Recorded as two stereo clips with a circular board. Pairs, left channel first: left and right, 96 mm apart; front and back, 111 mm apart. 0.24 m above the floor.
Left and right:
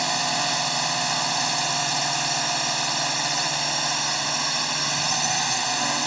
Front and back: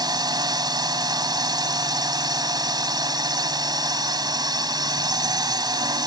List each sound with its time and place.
0.0 s a drone: straight behind